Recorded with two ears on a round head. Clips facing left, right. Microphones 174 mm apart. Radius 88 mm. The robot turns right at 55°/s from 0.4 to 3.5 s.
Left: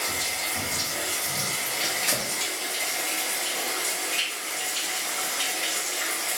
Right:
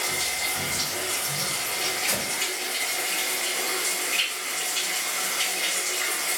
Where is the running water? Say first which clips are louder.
Right 1 dB; 15° left, 1.8 m; by 6.4 s 175° right, 1.8 m.